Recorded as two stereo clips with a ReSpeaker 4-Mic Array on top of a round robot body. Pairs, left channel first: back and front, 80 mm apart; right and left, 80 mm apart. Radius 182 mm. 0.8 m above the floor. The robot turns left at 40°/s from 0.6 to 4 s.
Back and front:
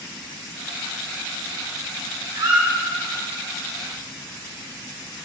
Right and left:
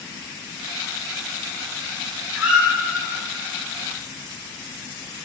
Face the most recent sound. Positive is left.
turn(degrees=-45)